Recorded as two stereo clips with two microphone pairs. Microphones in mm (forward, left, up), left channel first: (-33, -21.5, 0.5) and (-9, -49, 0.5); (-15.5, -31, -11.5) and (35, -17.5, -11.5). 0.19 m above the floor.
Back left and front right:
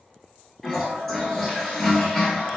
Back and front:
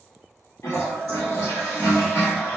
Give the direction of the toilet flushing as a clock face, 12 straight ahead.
5 o'clock.